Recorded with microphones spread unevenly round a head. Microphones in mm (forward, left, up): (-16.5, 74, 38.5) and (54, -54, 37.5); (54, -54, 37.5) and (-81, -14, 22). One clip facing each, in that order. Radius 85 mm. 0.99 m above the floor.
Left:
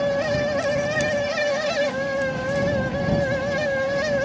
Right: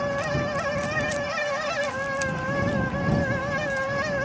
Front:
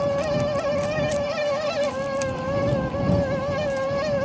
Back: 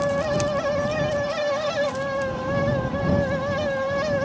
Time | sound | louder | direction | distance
0.0 | a fan | left 5 dB, even | 70° left | ?